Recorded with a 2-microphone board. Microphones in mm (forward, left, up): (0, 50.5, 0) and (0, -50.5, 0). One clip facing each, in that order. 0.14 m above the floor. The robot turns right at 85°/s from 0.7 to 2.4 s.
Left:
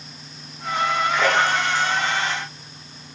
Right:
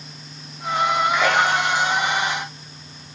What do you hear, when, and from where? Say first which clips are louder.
1.1 s a splash: right 1 dB; 10° left (ahead or behind), 3.5 m; by 1.9 s 55° right (ahead or behind), 3.5 m